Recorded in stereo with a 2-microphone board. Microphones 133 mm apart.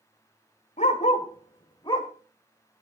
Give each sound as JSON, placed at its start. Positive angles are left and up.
{"t": 0.8, "sound": "a dog barking", "side_deg": 65, "distance_m": 1.9}